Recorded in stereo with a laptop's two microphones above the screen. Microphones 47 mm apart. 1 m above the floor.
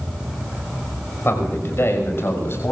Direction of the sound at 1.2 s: 50° left (ahead or behind).